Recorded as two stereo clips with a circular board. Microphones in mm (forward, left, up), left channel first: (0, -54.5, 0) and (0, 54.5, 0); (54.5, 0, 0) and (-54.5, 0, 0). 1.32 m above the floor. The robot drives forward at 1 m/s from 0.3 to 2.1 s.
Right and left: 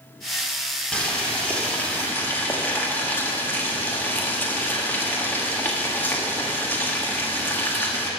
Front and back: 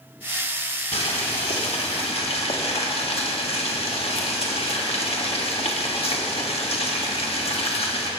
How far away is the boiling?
About 2.5 m.